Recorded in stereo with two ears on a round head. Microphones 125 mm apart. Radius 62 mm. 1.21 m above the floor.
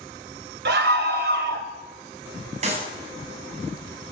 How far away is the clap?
About 7.5 m.